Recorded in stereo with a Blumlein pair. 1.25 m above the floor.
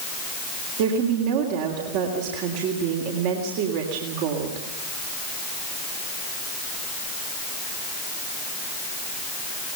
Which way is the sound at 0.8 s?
45° right.